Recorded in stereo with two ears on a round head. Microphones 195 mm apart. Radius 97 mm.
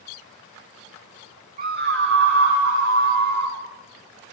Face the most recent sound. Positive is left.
turn(degrees=-85)